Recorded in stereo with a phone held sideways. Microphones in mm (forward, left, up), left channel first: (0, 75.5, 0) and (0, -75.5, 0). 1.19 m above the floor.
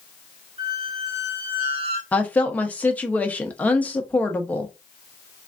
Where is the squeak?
40° right (ahead or behind), 1.5 m.